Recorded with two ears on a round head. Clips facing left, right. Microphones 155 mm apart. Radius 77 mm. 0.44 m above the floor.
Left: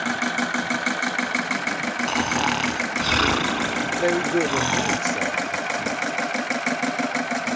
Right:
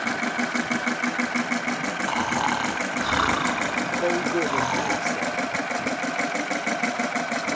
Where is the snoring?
30° left (ahead or behind).